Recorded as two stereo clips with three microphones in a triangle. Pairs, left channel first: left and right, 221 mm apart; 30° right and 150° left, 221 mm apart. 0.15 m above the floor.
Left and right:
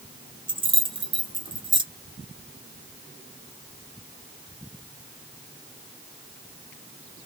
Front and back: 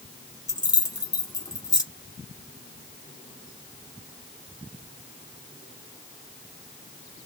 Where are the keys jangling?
70° right, 0.9 m.